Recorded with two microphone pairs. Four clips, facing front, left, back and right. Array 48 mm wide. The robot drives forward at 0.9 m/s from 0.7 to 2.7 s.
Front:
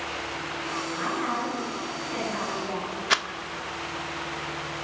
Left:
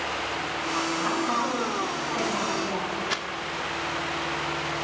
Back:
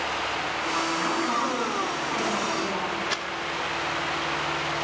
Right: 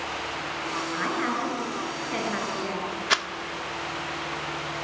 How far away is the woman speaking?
About 9.5 m.